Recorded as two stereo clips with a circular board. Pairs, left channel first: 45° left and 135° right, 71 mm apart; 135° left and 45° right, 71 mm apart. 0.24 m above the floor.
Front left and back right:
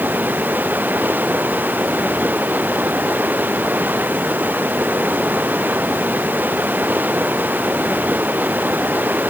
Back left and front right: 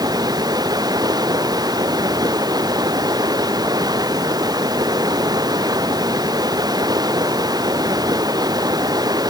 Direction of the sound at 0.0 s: 70° right.